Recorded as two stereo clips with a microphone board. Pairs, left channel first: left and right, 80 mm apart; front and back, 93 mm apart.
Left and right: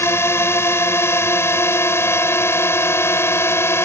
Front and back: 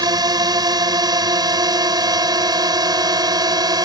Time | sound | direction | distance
0.0 | a drone | 145° left | ?